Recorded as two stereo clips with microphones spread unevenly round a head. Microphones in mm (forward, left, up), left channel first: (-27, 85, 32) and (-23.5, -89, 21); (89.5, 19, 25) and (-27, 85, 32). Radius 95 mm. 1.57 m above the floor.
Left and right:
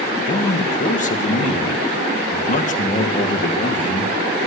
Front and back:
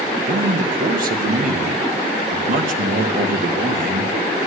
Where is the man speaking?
140° left, 2 m.